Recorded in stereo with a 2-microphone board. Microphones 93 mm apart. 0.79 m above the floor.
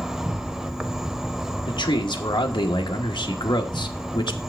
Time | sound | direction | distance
0.0 | an insect | 5° right (ahead or behind) | 0.7 m
1.7 | a man speaking | 55° left (ahead or behind) | 1.1 m